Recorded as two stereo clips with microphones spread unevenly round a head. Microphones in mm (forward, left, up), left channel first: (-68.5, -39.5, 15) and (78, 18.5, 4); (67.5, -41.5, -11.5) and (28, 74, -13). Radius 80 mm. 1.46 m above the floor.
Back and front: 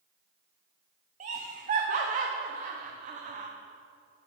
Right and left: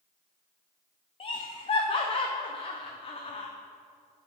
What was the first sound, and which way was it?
Laughter, 25° right.